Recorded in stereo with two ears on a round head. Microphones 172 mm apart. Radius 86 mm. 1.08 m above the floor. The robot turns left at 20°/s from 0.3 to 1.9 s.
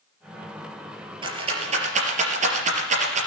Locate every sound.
1.2 s a rattle: 25° right (ahead or behind), 4 m; by 3.3 s 40° right (ahead or behind), 4 m